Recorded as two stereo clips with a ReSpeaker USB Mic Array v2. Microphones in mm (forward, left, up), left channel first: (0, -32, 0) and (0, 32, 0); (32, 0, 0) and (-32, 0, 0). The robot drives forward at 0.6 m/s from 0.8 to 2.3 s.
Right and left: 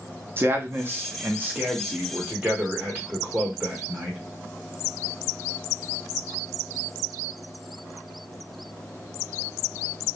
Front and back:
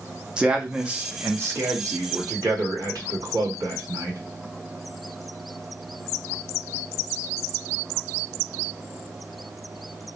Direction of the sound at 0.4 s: 115° left.